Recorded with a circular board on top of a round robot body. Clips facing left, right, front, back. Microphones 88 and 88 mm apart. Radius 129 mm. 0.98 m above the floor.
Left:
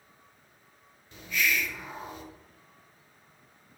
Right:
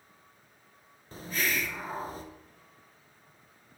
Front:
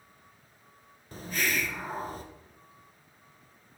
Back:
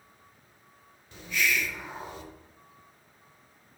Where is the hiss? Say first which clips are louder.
Left 2 dB, back 2 dB; 45° right, 0.8 m.